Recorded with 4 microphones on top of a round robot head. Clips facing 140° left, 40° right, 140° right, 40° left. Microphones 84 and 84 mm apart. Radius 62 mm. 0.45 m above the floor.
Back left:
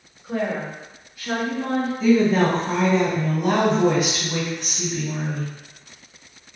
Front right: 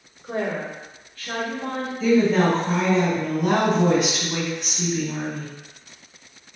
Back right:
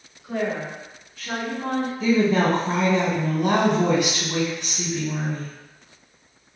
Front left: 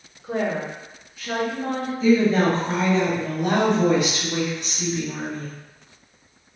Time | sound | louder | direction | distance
0.2 | a woman speaking | back left 1 dB, front left 1 dB | 5° right | 0.9 m
2.0 | a woman speaking | even, front left 2 dB | 130° right | 1.9 m